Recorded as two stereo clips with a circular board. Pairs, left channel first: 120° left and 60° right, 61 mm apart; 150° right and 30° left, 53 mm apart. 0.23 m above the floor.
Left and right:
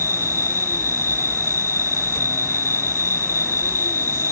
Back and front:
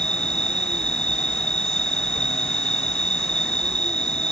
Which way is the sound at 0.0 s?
75° right.